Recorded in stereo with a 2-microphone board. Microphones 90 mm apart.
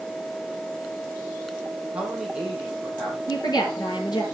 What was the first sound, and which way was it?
A man speaking, 10° right (ahead or behind).